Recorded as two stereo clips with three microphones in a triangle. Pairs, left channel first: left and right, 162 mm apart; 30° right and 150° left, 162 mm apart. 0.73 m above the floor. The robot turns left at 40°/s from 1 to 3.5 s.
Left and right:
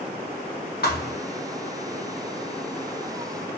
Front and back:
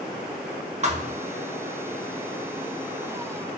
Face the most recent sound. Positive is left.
turn(degrees=5)